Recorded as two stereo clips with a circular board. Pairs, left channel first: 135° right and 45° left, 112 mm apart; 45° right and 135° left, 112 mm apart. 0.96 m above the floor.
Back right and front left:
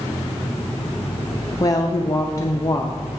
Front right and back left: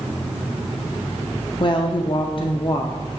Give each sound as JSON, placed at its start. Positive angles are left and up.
{"t": 1.6, "sound": "a woman speaking", "azimuth_deg": -80, "distance_m": 0.5}